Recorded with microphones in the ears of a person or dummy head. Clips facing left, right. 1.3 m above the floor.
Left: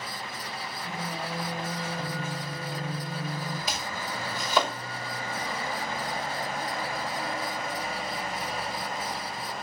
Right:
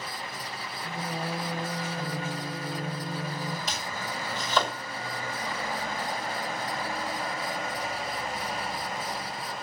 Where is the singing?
10° right (ahead or behind), 2.5 m.